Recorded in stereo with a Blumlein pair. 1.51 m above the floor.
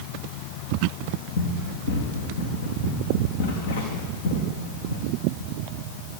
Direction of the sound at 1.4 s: 60° left.